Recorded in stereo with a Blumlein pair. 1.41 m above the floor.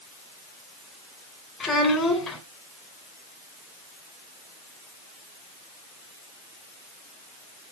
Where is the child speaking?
20° left, 3 m.